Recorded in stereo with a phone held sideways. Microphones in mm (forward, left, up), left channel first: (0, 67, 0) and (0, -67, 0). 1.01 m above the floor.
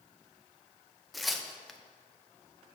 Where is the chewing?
No chewing in this recording.